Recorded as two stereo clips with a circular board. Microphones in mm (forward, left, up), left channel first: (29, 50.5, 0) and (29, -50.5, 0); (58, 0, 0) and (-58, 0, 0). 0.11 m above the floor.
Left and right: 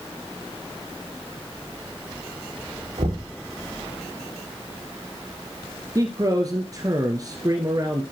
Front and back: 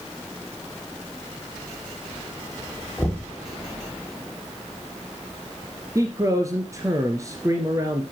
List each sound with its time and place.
3.0 s knocking: 80° right, 4 m
6.0 s a man speaking: 130° right, 2 m